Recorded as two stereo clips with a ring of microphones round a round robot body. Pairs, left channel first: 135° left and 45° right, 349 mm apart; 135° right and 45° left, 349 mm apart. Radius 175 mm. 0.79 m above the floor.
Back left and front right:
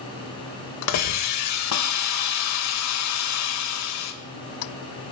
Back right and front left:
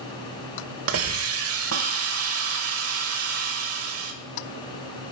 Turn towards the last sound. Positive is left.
turn(degrees=95)